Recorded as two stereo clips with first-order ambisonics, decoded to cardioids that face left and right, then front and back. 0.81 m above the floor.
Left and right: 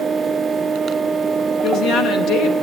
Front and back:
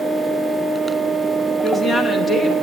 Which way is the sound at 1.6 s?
80° left.